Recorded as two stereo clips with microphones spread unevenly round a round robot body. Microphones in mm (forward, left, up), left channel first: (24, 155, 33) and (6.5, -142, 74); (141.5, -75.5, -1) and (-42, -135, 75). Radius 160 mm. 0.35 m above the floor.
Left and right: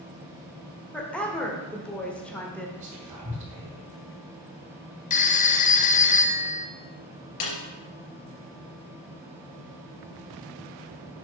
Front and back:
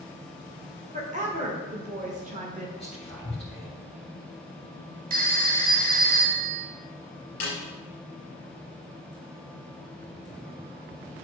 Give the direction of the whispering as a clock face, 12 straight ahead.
1 o'clock.